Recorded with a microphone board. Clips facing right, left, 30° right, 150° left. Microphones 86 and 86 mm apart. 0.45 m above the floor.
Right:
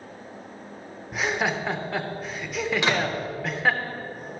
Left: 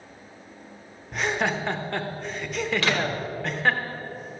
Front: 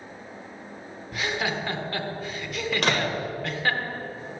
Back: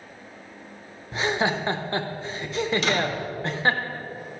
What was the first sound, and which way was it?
Laughter, 175° right.